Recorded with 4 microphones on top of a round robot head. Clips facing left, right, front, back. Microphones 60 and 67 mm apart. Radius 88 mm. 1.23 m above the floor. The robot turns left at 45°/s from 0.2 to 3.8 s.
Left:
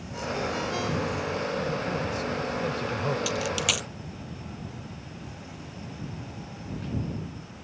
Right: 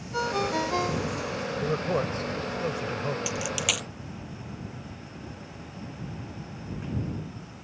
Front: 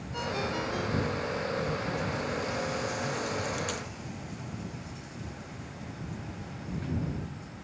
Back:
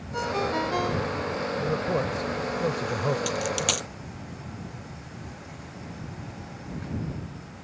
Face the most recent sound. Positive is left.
turn(degrees=175)